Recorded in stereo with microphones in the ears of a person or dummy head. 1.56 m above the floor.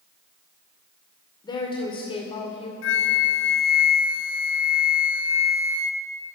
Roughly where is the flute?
Left.